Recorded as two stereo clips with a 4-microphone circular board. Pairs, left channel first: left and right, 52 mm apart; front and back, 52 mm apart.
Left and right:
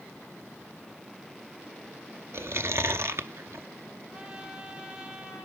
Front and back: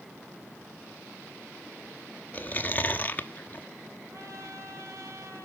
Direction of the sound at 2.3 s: 55° right.